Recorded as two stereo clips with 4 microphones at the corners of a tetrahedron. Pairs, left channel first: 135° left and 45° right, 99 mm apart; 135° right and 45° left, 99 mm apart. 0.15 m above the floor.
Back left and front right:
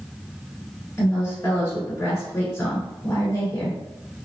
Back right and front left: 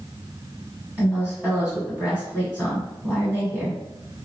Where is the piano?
No piano in this recording.